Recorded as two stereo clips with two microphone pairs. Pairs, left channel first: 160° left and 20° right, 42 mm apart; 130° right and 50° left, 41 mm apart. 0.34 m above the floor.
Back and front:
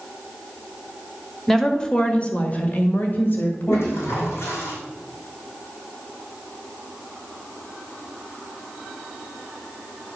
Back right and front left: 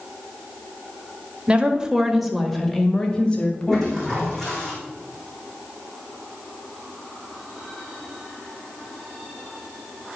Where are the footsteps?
No footsteps in this recording.